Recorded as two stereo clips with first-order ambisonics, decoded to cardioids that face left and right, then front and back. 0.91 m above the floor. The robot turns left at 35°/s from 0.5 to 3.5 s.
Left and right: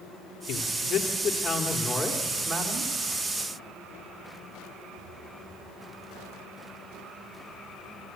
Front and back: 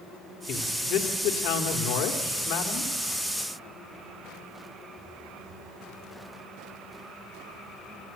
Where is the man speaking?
45° left, 2 m; by 2.9 s 35° right, 2 m.